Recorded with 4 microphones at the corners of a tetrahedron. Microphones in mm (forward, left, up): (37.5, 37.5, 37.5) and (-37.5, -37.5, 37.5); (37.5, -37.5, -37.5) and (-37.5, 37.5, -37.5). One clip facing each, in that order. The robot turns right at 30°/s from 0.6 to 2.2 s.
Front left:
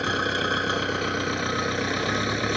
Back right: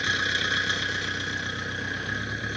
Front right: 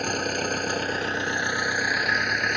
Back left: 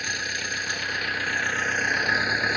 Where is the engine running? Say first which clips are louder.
Front left 4 dB, front right 7 dB; straight ahead; by 2.6 s 50° left.